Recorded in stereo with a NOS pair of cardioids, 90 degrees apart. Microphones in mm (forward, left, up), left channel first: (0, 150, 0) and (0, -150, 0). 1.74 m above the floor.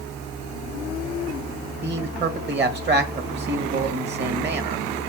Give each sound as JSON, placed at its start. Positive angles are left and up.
{"t": 1.8, "sound": "a man speaking", "azimuth_deg": -35, "distance_m": 2.0}